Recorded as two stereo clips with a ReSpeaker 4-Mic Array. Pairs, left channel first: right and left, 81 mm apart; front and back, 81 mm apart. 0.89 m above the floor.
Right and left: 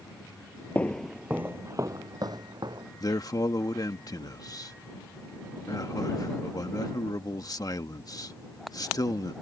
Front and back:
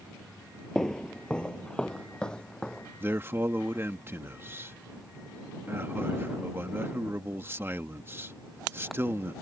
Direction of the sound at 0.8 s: 70° right.